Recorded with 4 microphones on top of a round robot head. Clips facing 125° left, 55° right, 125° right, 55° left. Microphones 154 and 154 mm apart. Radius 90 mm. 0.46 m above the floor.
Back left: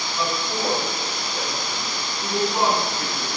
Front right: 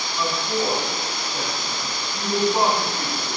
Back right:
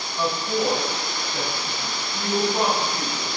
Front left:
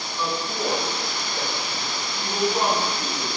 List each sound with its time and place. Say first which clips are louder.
0.2 s a woman speaking: front right 2 dB, back right 4 dB; 160° right, 3 m; by 3.3 s 120° right, 4 m